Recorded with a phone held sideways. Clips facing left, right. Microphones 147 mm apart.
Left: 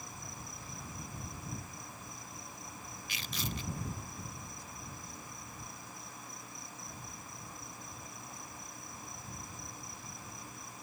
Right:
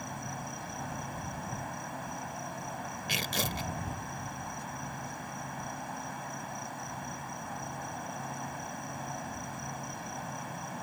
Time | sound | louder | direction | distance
0.0 | an insect | right 9 dB | 70° right (ahead or behind) | ?
3.1 | tearing paper | right 6 dB | 75° right (ahead or behind) | ?